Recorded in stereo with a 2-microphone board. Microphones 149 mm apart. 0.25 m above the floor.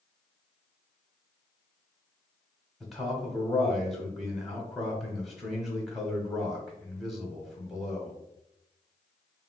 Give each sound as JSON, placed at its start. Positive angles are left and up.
{"t": 2.8, "sound": "a man speaking", "side_deg": 0, "distance_m": 1.0}